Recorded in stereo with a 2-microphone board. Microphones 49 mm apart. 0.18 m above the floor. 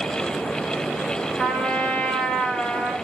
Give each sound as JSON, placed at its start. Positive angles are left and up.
{"t": 1.4, "sound": "a trumpet", "side_deg": 25, "distance_m": 2.5}